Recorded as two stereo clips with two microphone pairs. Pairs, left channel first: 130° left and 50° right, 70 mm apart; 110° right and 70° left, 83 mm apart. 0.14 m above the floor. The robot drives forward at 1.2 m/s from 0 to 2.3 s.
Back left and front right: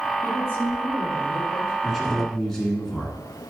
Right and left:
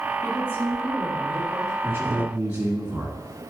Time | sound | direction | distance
0.2 | a woman speaking | 170° right | 3.5 m
1.8 | a man speaking | 30° left | 1.8 m